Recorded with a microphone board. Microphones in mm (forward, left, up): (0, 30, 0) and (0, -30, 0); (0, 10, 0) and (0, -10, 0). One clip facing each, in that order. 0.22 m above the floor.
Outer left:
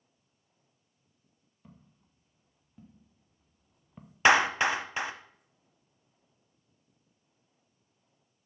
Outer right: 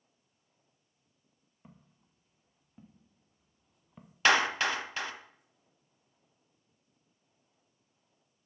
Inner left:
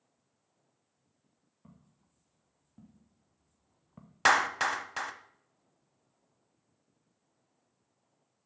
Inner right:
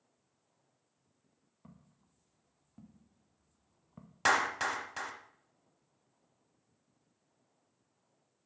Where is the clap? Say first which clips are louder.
Outer left 3 dB, inner left 4 dB; 20° left (ahead or behind), 0.8 m.